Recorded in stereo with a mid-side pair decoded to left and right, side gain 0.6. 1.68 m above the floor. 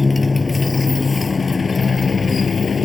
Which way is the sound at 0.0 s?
20° left.